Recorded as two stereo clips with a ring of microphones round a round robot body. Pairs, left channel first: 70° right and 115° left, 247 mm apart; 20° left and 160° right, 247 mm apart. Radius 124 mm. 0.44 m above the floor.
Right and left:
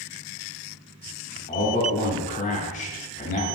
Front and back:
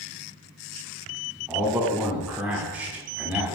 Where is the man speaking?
80° right, 0.8 m.